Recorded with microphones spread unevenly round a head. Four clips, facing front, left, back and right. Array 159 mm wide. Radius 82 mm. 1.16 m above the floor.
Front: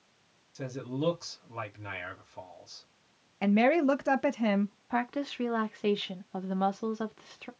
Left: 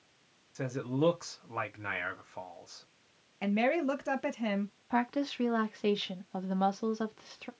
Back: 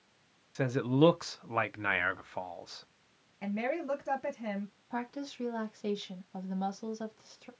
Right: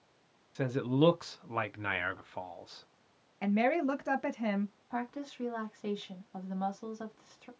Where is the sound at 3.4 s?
15° left, 0.7 m.